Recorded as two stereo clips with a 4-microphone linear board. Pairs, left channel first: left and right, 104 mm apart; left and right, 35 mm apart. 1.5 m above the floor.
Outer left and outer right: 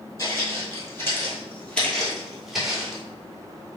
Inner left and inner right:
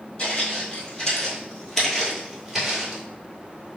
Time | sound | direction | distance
0.2 | footsteps | 30° left (ahead or behind) | 1.8 m